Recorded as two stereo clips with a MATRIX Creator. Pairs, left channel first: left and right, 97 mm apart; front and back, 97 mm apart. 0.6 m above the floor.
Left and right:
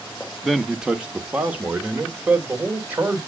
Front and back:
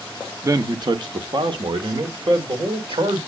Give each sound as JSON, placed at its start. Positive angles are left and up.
{"t": 0.4, "sound": "a man speaking", "azimuth_deg": 180, "distance_m": 0.7}